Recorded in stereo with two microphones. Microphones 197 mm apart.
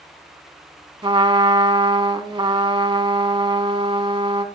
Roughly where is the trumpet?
Right.